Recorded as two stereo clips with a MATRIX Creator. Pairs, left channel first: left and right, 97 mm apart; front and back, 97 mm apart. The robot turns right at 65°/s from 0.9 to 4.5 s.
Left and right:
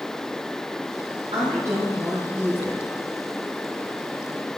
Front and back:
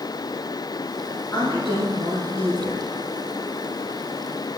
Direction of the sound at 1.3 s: 60° right.